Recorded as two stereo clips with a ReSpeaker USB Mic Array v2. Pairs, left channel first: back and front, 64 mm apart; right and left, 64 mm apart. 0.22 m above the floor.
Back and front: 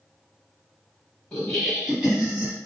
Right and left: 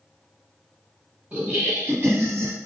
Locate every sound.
1.3 s laughter: 110° left, 1.1 m; by 2.5 s 55° left, 1.5 m